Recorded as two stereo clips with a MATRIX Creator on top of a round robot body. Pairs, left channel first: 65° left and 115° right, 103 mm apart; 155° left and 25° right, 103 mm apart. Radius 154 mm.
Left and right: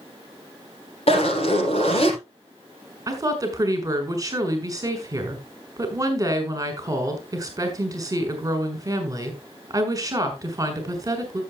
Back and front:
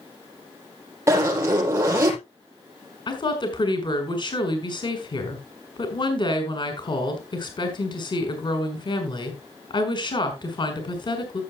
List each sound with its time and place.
1.1 s a zipper: 45° left, 5.5 m
3.1 s a woman speaking: 165° right, 3 m